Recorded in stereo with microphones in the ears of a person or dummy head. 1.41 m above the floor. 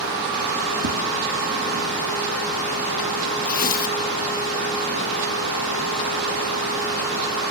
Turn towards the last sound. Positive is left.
turn(degrees=45)  # may be behind; listen again after turning